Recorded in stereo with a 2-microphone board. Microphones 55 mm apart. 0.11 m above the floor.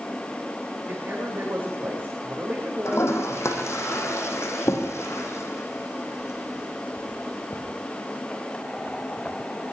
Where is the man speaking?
35° right (ahead or behind), 6 m.